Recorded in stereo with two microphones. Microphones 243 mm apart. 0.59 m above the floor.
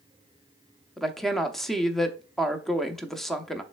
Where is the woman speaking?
Centre (ahead or behind), 0.7 m.